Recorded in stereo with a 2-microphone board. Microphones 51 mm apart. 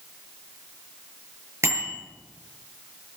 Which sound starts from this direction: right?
A bicycle bell, at 1.6 s.